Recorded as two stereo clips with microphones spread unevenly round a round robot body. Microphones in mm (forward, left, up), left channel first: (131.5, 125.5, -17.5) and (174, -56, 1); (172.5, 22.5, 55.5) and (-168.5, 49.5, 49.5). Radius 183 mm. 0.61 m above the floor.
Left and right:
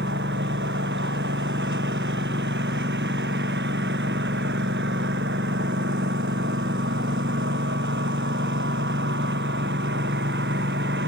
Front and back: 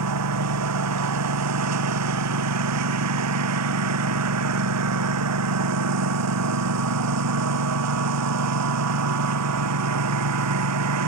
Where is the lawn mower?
135° right.